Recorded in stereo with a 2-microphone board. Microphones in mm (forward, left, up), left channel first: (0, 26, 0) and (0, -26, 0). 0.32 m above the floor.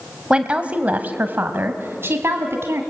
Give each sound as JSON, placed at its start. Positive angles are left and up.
{"t": 0.3, "sound": "a woman speaking", "side_deg": -20, "distance_m": 1.4}